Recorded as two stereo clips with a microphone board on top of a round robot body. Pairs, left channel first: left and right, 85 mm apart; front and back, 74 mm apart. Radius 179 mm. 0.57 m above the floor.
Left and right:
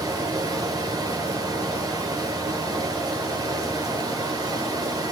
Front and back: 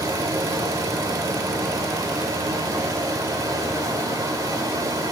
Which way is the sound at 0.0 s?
140° right.